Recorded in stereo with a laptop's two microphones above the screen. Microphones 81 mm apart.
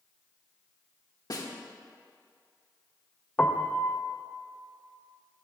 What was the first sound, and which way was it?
A snare drum, 50° left (ahead or behind).